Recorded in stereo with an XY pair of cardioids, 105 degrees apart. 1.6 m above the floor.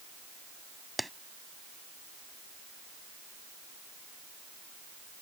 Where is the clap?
5° right.